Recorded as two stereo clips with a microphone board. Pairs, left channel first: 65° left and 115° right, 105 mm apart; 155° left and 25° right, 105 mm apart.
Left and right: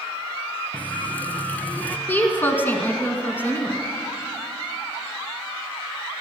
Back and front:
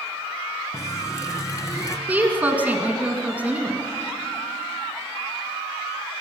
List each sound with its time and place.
0.7 s a running tap: 130° left, 1.0 m
2.1 s a woman speaking: 30° left, 1.8 m